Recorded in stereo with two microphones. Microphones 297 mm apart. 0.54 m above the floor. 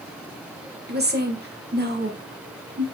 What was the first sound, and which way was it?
A woman speaking, 35° right (ahead or behind).